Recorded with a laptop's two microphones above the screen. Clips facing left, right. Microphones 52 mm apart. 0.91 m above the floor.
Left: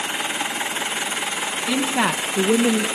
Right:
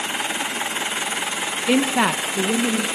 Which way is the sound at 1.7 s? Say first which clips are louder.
Right 3 dB; 35° right (ahead or behind).